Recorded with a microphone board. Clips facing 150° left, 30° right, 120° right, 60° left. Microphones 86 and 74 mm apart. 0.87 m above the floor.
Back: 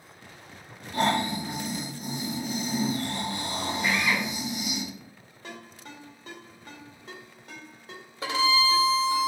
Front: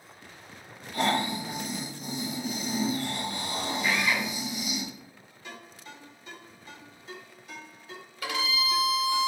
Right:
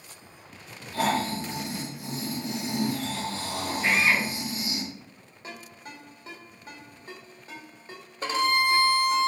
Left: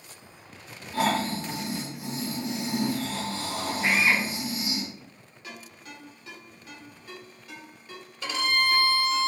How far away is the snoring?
About 2.5 m.